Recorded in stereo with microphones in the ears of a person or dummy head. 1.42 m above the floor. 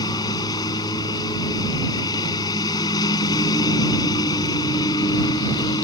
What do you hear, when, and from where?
0.0 s a lawn mower: 20° left (ahead or behind)